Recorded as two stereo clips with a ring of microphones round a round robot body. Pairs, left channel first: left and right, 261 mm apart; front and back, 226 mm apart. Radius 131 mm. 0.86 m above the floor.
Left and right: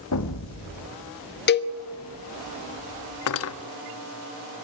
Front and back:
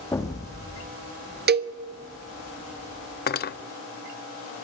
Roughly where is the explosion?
Left.